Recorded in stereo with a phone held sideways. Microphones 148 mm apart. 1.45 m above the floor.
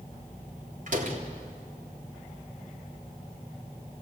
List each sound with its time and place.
0.9 s a door slam: 60° right (ahead or behind), 3 m